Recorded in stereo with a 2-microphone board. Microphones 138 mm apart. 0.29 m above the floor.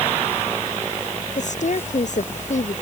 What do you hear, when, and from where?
1.4 s a woman speaking: 60° left (ahead or behind)